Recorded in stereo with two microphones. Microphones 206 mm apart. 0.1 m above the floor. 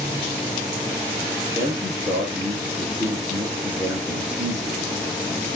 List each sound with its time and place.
1.5 s a man speaking: 15° right (ahead or behind), 2.5 m